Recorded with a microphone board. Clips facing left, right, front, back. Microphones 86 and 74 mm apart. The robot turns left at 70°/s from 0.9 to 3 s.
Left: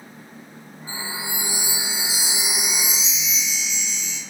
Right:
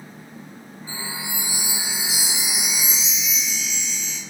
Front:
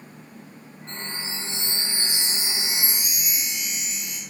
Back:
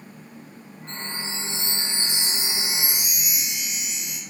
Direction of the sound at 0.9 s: 165° right.